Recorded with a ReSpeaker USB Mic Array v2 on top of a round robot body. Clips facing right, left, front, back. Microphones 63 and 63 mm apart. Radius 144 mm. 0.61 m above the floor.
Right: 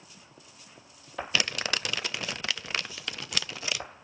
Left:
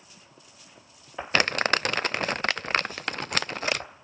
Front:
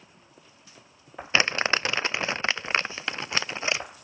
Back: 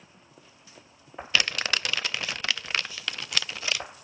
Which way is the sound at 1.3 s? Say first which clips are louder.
Left 7 dB, front 4 dB; 55° left.